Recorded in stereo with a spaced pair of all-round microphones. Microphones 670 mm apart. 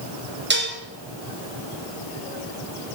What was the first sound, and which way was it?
Dishes clattering, 15° right (ahead or behind).